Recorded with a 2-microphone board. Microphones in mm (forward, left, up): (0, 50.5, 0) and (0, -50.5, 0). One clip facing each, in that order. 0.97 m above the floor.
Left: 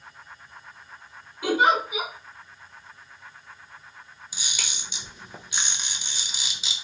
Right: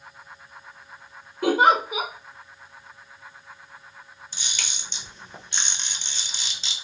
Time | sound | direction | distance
1.4 | a giggle | 50° right (ahead or behind) | 1.5 m
4.3 | a camera shutter | 10° left (ahead or behind) | 0.7 m